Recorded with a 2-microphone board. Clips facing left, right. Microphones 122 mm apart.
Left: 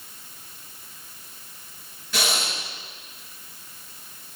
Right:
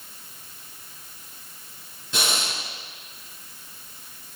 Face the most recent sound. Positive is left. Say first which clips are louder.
# left 1 dB
turn(degrees=-25)  # may be behind; listen again after turning